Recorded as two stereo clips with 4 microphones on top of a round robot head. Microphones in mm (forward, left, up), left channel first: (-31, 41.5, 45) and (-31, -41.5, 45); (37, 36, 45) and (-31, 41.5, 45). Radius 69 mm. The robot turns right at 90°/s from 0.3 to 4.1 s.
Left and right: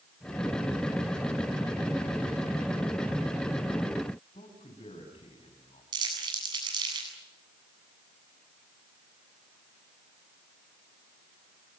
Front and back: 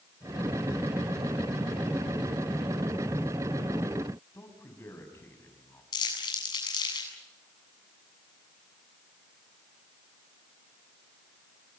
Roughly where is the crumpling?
Ahead right.